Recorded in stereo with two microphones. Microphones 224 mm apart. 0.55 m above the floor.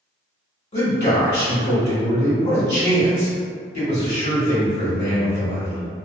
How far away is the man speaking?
About 1.2 m.